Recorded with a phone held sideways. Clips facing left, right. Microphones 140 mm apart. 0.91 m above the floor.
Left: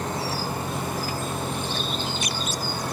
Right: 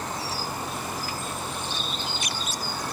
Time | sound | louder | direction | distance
0.0 | a machine running | left 4 dB | 55° left (ahead or behind) | ?